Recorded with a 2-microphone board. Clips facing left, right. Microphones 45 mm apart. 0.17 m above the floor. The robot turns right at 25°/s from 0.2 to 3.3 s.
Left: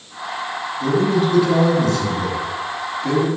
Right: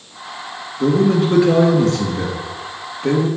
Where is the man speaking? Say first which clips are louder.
Right 3 dB; 105° right, 2.5 m; by 3.3 s 45° right, 2.5 m.